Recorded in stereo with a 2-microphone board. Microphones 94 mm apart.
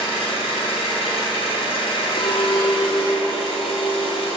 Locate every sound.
0.0 s an engine running: 80° left, 2.5 m
2.2 s a clink: 60° left (ahead or behind), 0.7 m